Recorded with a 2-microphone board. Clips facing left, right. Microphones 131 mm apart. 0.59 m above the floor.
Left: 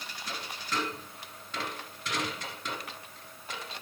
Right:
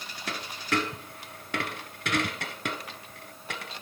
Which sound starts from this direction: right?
A dropped coin, at 0.3 s.